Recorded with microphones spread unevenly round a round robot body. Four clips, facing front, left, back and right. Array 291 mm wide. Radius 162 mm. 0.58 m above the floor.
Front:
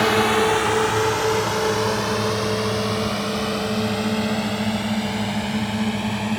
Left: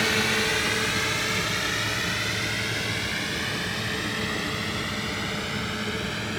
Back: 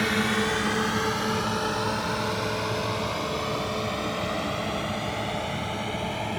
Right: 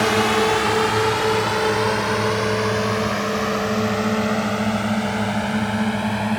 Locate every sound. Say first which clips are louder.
0.0 s a drone: right 9 dB, front 8 dB; 40° right; by 6.4 s 65° right